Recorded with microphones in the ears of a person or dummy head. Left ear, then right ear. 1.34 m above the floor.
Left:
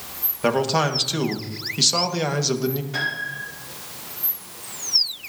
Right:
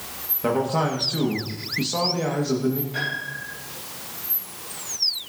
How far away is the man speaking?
About 1.7 m.